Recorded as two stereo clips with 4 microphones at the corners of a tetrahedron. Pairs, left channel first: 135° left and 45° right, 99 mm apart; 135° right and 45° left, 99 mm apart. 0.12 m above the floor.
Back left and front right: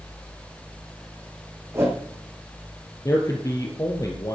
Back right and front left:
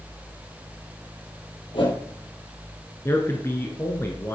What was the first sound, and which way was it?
A whoosh, 105° right.